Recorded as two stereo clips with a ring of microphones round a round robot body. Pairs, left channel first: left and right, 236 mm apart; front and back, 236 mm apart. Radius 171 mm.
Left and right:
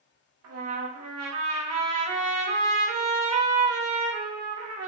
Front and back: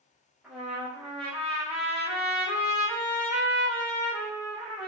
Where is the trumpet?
90° right, 0.8 m.